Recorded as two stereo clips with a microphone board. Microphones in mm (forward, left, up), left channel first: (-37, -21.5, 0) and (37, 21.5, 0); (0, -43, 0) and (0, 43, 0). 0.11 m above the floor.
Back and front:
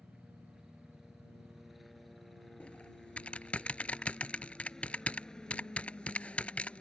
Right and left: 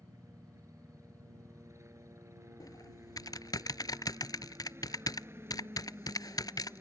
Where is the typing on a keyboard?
80° right.